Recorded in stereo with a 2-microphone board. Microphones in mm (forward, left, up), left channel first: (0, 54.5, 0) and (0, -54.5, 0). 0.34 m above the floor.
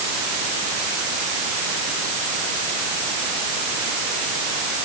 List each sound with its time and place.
Only background noise.